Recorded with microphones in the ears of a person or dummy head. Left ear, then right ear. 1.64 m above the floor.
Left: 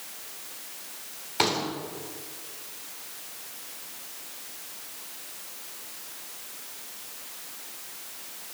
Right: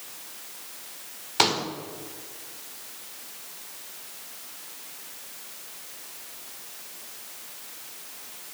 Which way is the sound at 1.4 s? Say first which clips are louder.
Right 3 dB; 25° right (ahead or behind).